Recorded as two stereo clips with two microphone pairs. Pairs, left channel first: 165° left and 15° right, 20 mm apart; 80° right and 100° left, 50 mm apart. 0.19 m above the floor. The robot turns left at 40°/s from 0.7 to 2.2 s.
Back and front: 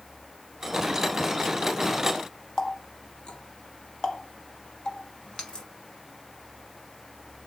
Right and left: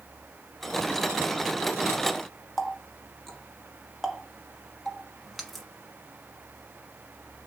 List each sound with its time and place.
2.6 s a running tap: 170° right, 1.1 m